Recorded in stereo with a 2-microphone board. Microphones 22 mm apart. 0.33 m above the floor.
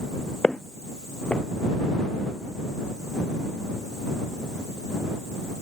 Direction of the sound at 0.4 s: 70° left (ahead or behind).